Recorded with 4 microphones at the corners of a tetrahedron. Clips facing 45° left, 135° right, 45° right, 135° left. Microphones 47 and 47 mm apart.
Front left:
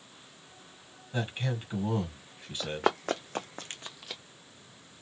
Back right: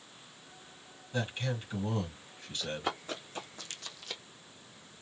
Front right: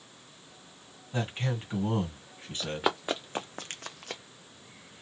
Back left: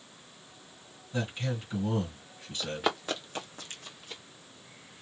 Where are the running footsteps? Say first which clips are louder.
Front left 7 dB, front right 1 dB; 40° left, 1.2 m; by 4.2 s 50° right, 0.8 m.